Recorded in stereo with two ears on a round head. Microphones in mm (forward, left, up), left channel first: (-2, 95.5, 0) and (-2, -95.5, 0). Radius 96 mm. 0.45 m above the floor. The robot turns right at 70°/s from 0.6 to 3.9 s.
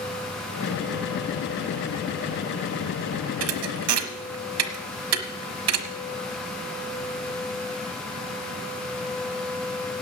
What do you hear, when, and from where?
3.4 s a thud: 65° right (ahead or behind), 1.0 m; by 6.0 s 80° right, 1.0 m